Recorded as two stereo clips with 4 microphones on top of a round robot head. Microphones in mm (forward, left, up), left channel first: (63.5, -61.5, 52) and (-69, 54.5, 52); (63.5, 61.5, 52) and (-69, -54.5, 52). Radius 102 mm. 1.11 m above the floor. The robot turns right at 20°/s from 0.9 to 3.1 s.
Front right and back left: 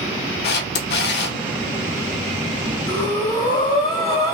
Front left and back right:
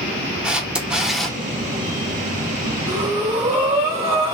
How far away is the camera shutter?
About 0.7 m.